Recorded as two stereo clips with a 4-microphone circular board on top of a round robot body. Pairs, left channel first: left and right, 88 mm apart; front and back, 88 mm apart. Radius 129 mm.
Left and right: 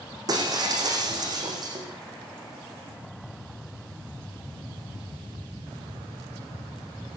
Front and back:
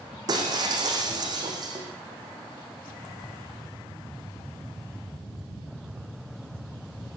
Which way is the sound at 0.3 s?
135° right.